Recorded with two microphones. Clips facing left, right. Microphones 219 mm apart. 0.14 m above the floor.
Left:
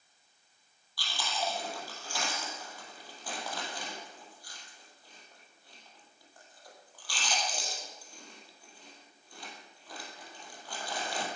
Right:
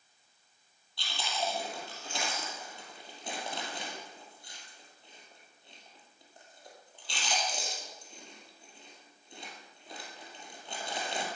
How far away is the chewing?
About 4 m.